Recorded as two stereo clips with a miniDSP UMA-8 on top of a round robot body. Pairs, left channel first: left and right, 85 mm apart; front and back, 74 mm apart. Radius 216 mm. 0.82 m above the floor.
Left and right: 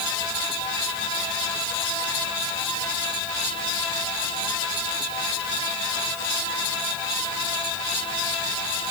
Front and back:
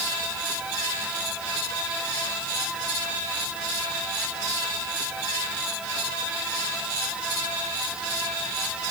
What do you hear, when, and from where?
Only background noise.